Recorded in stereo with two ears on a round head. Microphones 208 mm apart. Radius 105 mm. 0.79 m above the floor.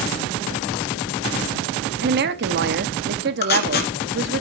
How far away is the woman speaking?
About 1.2 m.